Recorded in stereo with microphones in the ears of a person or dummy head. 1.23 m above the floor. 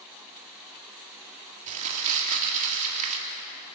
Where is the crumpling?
45° right (ahead or behind), 3 m.